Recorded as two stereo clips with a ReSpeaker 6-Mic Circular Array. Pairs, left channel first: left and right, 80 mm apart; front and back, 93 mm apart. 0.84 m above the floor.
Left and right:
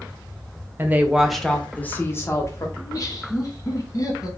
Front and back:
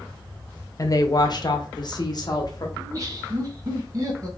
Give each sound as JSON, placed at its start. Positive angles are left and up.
{"t": 0.8, "sound": "a woman speaking", "azimuth_deg": -35, "distance_m": 0.8}
{"t": 2.8, "sound": "laughter", "azimuth_deg": 135, "distance_m": 1.6}